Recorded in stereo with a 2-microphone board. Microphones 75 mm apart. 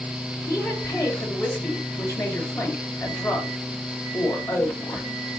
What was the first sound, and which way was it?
A woman speaking, 55° left (ahead or behind).